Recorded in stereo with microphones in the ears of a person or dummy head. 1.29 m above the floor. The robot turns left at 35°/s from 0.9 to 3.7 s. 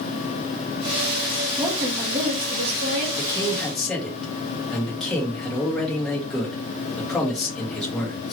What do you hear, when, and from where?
1.6 s a woman speaking: 20° right, 1.0 m; by 3.1 s 70° right, 1.0 m
3.2 s a man speaking: 20° left (ahead or behind), 2 m; by 8.3 s centre (ahead or behind), 2 m